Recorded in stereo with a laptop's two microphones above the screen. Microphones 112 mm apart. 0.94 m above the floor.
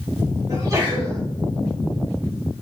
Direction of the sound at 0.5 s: 30° right (ahead or behind).